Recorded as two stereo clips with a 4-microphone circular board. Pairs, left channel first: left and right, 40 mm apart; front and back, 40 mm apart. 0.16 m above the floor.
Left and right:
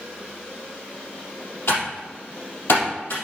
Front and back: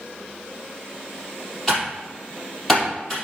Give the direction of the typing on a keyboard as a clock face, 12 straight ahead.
9 o'clock.